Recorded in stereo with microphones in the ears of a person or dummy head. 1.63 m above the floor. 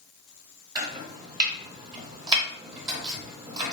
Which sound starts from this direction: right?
Chopping, at 0.8 s.